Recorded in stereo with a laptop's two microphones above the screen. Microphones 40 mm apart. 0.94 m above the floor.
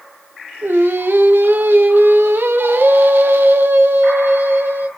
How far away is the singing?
About 1.1 m.